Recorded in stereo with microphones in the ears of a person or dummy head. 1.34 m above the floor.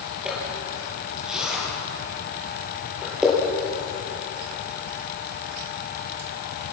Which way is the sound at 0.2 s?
5° right (ahead or behind).